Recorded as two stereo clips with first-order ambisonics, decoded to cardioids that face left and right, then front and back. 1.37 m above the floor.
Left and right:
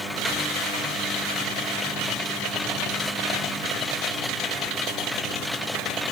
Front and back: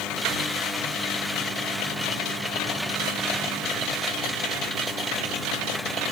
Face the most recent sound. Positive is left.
No sound to turn to.